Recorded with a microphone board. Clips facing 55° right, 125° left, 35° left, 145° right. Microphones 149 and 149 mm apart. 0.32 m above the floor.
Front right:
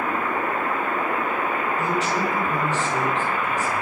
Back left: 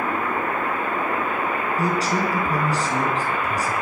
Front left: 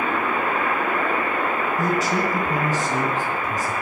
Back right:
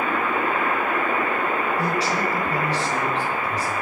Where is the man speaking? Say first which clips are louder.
Back left 3 dB, front left 2 dB; 75° left, 4 m.